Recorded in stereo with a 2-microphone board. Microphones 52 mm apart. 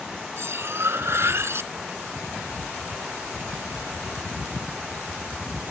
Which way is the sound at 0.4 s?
55° right (ahead or behind).